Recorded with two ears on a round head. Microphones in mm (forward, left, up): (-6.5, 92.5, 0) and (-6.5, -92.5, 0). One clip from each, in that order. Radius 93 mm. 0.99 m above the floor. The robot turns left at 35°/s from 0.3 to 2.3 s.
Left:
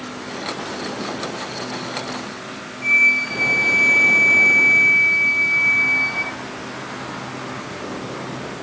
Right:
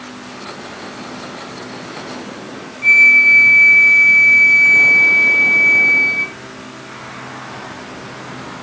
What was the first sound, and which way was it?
A flute, 15° right (ahead or behind).